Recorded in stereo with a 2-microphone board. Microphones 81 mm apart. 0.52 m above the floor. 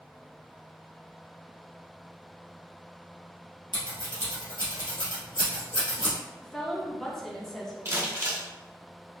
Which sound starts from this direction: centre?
A woman speaking, at 6.4 s.